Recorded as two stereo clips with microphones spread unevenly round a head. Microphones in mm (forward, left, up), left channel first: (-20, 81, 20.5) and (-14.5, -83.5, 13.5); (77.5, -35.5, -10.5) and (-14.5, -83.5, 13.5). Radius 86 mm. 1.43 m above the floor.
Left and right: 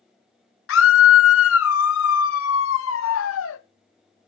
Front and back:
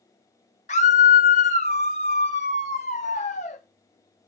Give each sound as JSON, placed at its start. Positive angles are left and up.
{"t": 0.7, "sound": "a scream", "azimuth_deg": 75, "distance_m": 0.8}